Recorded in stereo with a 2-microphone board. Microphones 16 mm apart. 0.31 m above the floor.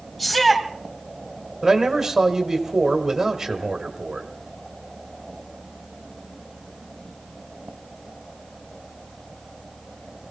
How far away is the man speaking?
About 1.8 m.